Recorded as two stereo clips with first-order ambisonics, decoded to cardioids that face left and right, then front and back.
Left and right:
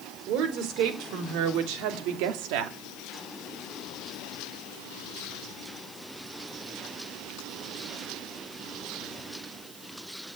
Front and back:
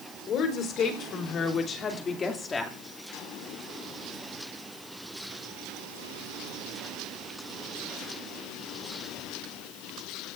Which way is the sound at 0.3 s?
55° right.